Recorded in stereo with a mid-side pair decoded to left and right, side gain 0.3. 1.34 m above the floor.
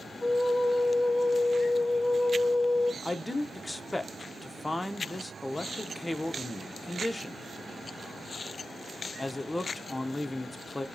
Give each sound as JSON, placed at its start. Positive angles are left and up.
{"t": 0.2, "sound": "a flute", "azimuth_deg": 25, "distance_m": 0.8}
{"t": 3.0, "sound": "a man speaking", "azimuth_deg": 25, "distance_m": 0.7}